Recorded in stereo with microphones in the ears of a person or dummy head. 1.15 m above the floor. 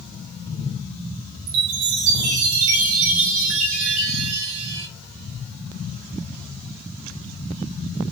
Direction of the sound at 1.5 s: 75° right (ahead or behind).